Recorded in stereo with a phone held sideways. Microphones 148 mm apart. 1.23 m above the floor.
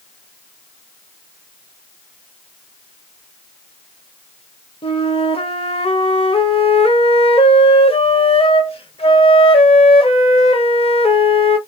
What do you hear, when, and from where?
4.8 s a flute: 40° left (ahead or behind), 0.6 m